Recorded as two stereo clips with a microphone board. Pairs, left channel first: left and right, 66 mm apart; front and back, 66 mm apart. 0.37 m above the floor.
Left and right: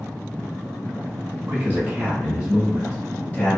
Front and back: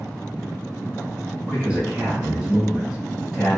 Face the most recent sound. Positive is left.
turn(degrees=95)